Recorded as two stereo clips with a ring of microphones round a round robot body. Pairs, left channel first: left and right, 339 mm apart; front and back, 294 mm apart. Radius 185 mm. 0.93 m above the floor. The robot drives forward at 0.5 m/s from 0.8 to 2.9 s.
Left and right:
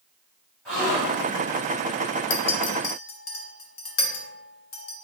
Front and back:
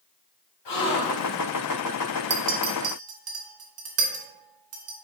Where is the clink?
125° left, 0.7 m; by 4.9 s 140° left, 0.9 m.